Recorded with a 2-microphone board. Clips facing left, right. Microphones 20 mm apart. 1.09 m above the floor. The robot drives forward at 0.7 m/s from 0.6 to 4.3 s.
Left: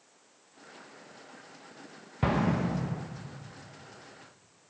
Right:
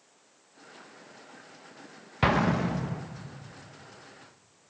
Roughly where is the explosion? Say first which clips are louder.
Right 3 dB; right.